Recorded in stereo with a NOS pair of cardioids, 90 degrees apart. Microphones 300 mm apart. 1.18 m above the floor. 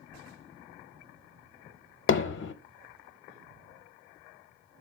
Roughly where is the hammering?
Ahead left.